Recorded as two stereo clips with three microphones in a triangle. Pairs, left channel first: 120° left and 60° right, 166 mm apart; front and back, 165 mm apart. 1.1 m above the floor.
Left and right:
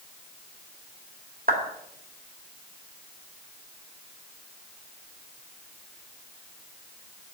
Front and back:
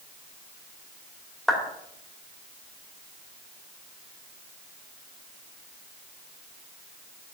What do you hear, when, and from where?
1.5 s a clap: 90° right, 2.5 m